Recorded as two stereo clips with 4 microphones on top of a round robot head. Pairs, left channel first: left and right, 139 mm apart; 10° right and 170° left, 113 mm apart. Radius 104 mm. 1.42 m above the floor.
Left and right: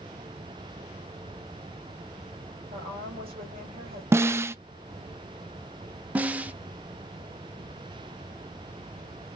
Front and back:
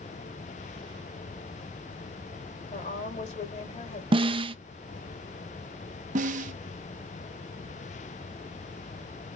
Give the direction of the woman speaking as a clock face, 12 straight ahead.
1 o'clock.